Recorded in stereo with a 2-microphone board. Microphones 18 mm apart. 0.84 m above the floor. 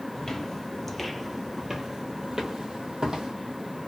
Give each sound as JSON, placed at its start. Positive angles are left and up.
{"t": 0.1, "sound": "footsteps", "side_deg": 25, "distance_m": 1.0}